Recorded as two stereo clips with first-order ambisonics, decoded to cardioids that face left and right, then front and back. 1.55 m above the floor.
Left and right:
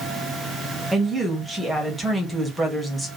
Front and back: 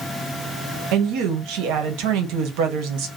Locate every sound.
0.9 s a woman speaking: 175° right, 1.1 m